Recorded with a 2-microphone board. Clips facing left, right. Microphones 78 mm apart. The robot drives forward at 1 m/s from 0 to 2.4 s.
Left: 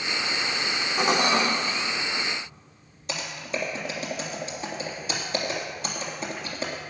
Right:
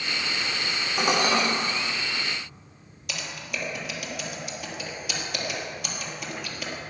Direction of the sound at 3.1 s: 30° left (ahead or behind).